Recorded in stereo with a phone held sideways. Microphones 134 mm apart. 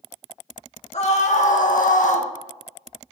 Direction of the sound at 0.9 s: 55° left (ahead or behind).